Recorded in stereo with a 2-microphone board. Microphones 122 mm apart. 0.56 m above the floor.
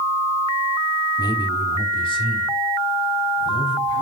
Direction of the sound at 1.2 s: 30° left (ahead or behind).